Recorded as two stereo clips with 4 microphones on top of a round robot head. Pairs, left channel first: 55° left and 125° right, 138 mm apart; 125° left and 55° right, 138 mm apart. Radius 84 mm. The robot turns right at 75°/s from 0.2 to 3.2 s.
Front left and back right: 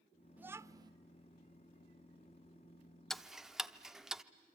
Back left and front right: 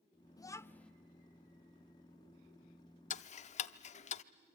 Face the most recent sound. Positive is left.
turn(degrees=150)